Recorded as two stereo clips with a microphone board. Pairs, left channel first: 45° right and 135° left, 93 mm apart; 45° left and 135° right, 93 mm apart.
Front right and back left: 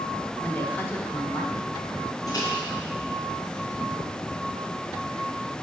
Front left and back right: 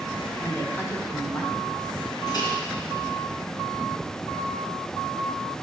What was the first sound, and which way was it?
A woman speaking, straight ahead.